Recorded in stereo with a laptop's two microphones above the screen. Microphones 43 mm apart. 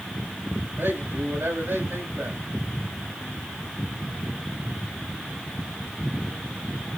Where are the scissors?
I don't hear scissors.